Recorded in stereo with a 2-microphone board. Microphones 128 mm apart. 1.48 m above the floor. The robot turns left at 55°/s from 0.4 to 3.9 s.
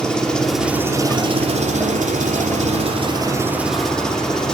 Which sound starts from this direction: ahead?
An engine running, at 0.0 s.